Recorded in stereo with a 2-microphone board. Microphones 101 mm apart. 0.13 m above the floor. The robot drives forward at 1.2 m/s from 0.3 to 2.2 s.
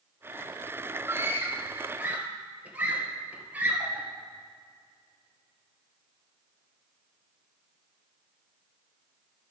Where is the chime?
I don't hear a chime.